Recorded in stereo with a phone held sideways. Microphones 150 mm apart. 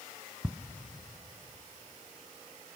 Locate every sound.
0.4 s ticking: 15° right (ahead or behind), 1.2 m